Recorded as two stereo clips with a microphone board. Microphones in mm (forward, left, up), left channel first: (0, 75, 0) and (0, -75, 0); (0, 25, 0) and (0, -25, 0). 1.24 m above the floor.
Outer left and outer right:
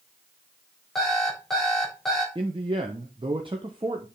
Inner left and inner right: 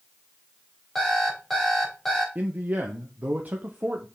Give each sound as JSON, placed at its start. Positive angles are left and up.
{"t": 0.9, "sound": "an alarm clock", "side_deg": 0, "distance_m": 4.0}
{"t": 2.4, "sound": "a man speaking", "side_deg": -35, "distance_m": 0.9}